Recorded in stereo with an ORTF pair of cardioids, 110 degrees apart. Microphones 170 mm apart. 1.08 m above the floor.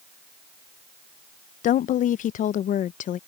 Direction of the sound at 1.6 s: 50° left.